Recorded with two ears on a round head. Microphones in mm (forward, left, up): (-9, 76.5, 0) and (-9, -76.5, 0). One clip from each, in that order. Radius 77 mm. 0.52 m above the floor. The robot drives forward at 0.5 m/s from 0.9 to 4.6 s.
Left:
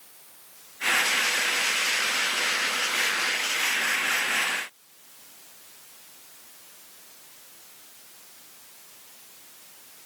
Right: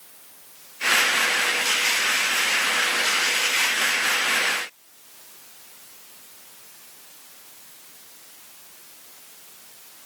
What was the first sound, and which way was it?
Only background noise.